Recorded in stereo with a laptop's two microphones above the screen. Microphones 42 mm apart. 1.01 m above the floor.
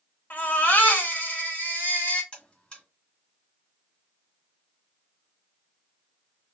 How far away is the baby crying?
About 1.5 m.